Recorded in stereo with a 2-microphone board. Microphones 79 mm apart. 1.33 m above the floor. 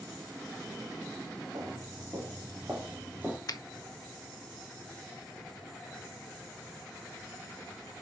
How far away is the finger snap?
About 0.8 m.